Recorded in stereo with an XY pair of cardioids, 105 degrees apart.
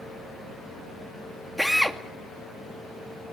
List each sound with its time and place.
1.6 s a drill: straight ahead, 2.5 m